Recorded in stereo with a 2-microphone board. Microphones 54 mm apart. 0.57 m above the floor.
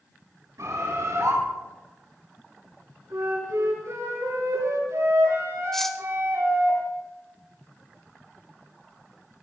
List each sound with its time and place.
0.6 s a bird: 80° right, 8.5 m
3.1 s a flute: 80° right, 9 m
5.7 s cutlery clinking: 5° left (ahead or behind), 1.0 m